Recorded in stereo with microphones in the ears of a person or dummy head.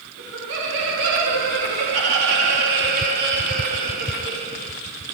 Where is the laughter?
85° right, 3.5 m; by 4.7 s 45° right (ahead or behind), 2.5 m.